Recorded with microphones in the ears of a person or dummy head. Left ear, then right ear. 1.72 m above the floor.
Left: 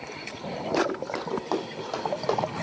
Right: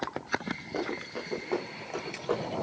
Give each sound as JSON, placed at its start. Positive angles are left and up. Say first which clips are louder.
{"t": 0.7, "sound": "running footsteps", "louder": "left 9 dB", "side_deg": 70, "distance_m": 4.5}